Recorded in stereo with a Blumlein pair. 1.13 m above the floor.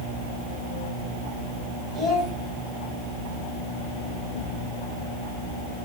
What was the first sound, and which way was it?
A child speaking, 15° right.